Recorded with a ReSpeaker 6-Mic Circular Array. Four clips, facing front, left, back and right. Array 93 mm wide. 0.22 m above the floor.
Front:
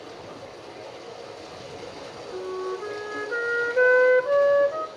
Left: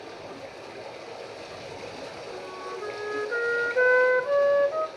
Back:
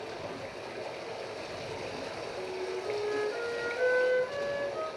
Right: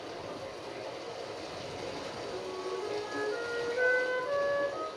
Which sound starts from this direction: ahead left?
A flute, at 2.3 s.